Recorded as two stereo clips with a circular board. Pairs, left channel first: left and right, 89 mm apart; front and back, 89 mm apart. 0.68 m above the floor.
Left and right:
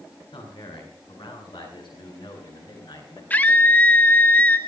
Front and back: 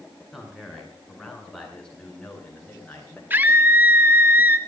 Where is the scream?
140° left, 1.3 m.